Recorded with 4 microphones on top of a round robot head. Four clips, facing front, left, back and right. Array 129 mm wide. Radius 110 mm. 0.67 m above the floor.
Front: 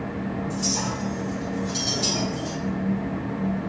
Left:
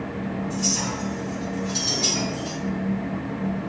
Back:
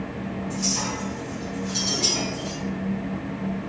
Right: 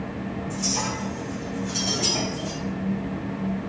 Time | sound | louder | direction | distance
0.5 | a clink | left 1 dB, front 1 dB | 60° right | 3.5 m